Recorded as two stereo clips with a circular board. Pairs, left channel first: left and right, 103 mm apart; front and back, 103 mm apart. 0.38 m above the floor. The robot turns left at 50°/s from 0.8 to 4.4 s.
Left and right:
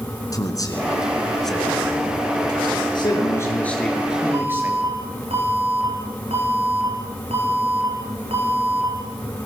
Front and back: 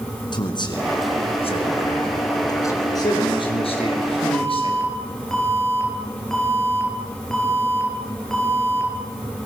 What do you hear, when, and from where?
0.3 s a man speaking: 40° left, 4 m; by 2.9 s 65° right, 4 m
3.0 s a man speaking: 50° left, 6 m; by 4.8 s 20° right, 6 m
4.3 s an alarm: 80° right, 5.5 m; by 8.9 s 85° right, 5.5 m